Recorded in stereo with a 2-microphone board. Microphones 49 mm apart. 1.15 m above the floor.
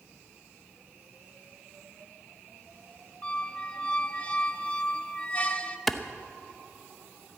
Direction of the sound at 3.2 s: 25° left (ahead or behind).